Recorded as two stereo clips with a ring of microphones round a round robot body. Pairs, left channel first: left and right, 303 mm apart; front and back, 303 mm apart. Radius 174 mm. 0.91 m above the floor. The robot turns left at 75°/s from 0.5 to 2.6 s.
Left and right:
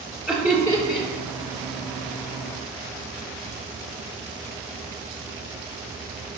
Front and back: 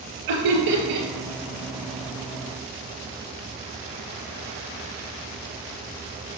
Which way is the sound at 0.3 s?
Straight behind.